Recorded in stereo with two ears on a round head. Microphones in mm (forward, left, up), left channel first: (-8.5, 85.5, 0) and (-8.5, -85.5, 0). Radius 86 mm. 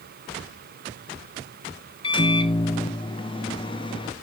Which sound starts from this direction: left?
A microwave, at 2.0 s.